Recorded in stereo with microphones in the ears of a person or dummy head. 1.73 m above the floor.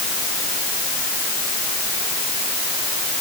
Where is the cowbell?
I don't hear a cowbell.